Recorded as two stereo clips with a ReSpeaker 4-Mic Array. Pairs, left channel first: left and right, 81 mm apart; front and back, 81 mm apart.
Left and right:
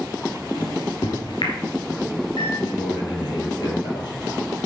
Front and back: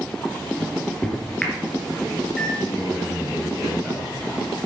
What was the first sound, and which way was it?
A microwave, 85° left.